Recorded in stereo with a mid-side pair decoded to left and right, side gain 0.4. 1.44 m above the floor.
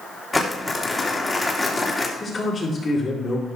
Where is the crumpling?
25° left, 2.5 m.